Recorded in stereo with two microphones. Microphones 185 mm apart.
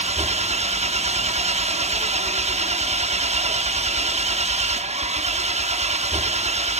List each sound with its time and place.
0.0 s an engine running: 35° right (ahead or behind), 1.0 m